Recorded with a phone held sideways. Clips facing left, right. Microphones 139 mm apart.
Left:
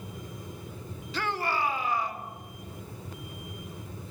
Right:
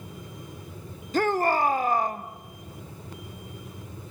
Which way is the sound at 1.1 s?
50° right (ahead or behind).